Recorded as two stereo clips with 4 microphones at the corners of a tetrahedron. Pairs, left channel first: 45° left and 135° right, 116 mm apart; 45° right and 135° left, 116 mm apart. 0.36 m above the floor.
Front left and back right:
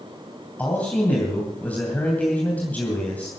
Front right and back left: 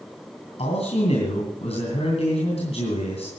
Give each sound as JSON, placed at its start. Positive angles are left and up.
{"t": 0.6, "sound": "a man speaking", "azimuth_deg": -30, "distance_m": 2.5}